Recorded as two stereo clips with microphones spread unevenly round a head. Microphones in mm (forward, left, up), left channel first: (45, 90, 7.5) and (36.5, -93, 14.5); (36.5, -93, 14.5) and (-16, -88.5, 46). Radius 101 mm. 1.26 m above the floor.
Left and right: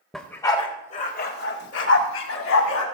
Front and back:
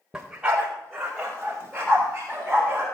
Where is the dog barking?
175° left, 1.2 m; by 2.9 s 100° left, 2.5 m.